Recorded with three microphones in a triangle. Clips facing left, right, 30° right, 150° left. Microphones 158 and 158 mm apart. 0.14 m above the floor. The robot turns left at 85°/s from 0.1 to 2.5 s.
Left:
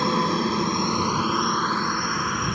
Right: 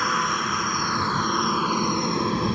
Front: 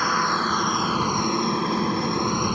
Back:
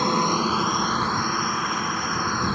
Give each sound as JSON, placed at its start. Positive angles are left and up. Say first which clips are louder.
{"t": 0.0, "sound": "a helicopter", "louder": "left 5 dB, back 3 dB", "azimuth_deg": 115}